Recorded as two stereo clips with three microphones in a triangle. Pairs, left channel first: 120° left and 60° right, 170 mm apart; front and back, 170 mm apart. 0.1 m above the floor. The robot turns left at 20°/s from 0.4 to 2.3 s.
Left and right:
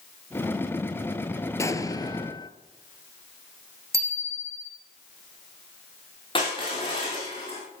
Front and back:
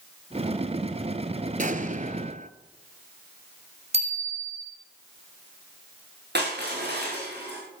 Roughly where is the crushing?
Behind.